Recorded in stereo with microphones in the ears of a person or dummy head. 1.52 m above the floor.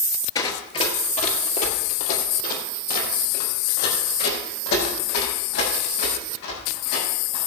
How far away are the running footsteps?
About 1.8 m.